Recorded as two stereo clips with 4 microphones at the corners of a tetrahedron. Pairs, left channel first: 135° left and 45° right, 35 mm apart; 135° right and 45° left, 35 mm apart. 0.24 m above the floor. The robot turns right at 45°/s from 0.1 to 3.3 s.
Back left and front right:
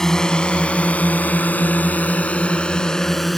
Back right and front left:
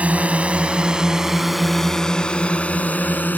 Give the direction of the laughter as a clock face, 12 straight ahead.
I don't hear laughter.